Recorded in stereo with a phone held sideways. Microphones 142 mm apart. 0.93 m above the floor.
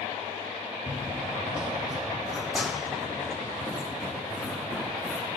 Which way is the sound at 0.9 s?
10° right (ahead or behind).